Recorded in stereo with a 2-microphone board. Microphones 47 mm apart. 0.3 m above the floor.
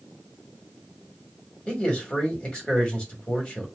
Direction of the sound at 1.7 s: 20° left (ahead or behind).